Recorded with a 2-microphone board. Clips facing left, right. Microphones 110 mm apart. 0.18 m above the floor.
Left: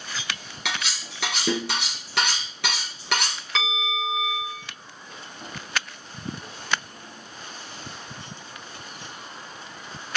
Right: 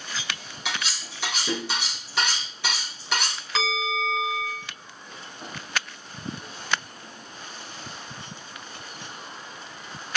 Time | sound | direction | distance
0.7 | cutlery clinking | 65° left (ahead or behind) | 1.6 m
3.5 | a bell | centre (ahead or behind) | 0.7 m